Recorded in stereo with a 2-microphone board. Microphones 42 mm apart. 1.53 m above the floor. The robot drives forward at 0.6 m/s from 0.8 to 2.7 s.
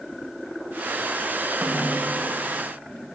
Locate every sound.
1.6 s a snare drum: 75° right (ahead or behind), 1.8 m; by 2.1 s 65° right (ahead or behind), 1.9 m